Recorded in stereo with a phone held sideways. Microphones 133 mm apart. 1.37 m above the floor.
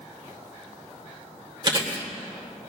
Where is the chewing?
40° right (ahead or behind), 3 m.